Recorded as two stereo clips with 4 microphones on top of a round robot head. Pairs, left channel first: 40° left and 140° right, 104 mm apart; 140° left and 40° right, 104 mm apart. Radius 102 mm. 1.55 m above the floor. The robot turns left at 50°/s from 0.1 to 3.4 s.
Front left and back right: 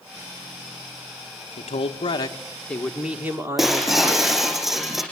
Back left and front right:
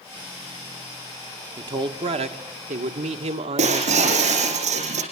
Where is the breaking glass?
55° right, 6.5 m.